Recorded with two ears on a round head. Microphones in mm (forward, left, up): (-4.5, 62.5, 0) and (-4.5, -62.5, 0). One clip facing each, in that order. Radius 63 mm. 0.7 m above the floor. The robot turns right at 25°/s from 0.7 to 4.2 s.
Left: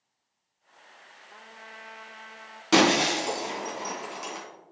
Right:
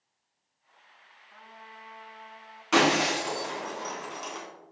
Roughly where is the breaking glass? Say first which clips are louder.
Left 2 dB; left.